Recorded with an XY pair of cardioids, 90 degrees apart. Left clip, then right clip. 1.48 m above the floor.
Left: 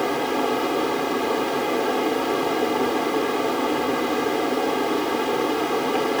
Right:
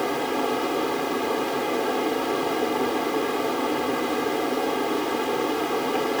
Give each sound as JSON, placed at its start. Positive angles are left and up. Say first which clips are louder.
{"t": 0.0, "sound": "a fan", "louder": "left 2 dB", "azimuth_deg": 20}